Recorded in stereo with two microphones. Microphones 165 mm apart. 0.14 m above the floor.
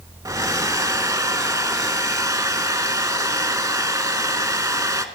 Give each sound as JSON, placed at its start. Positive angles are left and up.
{"t": 0.2, "sound": "a hair dryer", "side_deg": -20, "distance_m": 0.8}